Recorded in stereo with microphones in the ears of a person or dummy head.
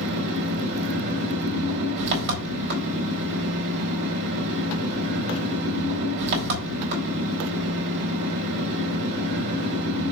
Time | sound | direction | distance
0.0 | an engine running | 60° right (ahead or behind) | 4.5 m